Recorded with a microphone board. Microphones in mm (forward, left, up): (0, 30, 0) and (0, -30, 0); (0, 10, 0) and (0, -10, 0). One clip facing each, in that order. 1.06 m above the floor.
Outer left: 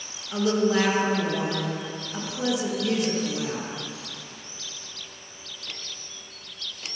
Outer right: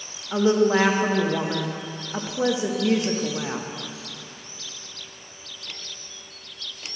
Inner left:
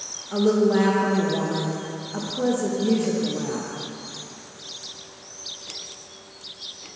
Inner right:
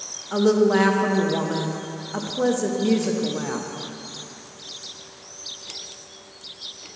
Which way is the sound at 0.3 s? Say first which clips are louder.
Outer right 4 dB, inner right 1 dB; 30° right (ahead or behind).